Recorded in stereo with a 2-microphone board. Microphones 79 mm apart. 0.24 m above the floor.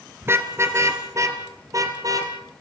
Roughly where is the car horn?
Right.